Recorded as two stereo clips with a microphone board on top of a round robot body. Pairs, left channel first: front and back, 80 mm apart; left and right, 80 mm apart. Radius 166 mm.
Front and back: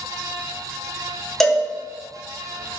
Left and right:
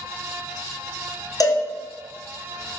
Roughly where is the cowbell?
Left.